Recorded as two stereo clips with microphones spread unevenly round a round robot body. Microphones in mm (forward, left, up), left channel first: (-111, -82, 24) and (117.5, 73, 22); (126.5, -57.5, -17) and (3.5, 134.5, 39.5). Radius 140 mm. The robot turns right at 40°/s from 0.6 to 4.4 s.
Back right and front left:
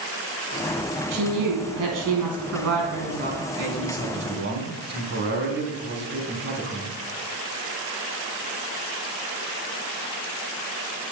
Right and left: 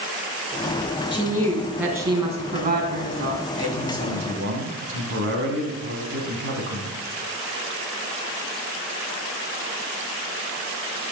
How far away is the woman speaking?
About 4 m.